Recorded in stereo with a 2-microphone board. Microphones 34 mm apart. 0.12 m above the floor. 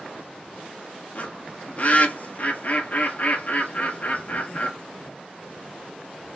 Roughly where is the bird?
Left.